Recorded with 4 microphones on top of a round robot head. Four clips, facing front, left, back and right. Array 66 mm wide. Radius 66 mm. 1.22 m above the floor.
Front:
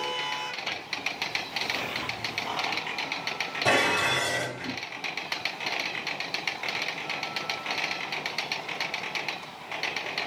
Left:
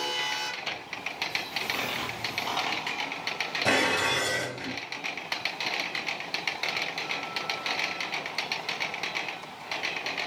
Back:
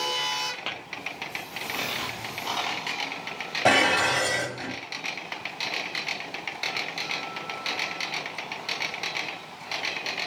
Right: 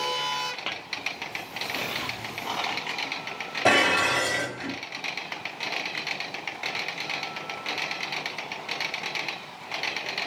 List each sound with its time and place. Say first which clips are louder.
0.7 s tapping: right 2 dB, even; 130° right, 1.4 m
3.6 s dishes clattering: right 5 dB, back 3 dB; 145° right, 2.5 m